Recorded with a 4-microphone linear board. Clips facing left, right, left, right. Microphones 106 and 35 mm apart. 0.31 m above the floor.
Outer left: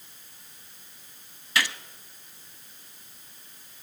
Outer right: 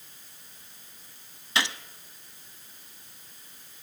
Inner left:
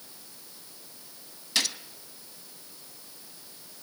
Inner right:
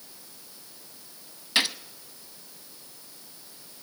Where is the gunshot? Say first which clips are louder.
Outer left 1 dB, inner right 4 dB; 25° right (ahead or behind), 0.9 m.